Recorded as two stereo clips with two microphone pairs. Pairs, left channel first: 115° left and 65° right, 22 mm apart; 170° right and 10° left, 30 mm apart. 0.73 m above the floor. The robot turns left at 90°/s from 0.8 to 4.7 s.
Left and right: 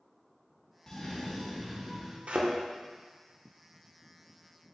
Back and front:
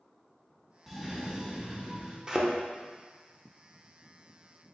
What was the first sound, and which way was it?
A cough, 90° left.